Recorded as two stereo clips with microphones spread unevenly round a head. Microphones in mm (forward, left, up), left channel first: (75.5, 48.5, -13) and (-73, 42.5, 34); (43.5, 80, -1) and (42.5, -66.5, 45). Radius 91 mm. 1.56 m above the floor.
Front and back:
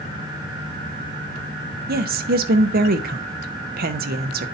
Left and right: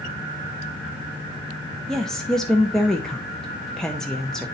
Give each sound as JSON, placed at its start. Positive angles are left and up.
{"t": 1.9, "sound": "a woman speaking", "azimuth_deg": 180, "distance_m": 0.8}